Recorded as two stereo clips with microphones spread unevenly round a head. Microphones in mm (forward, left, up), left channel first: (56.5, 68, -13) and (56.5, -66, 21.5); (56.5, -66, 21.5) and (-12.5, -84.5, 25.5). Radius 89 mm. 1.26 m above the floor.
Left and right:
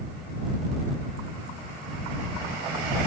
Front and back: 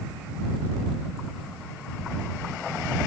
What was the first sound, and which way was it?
Only background noise.